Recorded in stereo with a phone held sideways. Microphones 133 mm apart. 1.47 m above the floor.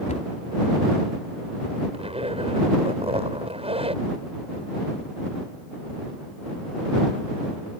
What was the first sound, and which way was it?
A cupboard door, 65° left (ahead or behind).